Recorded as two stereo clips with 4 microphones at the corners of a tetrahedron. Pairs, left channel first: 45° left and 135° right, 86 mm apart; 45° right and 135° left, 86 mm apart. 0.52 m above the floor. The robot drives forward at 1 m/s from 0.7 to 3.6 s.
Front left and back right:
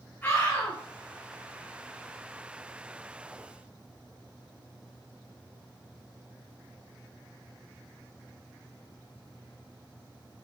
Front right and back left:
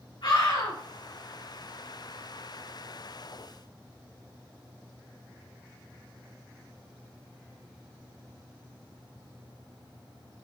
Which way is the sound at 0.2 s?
15° right.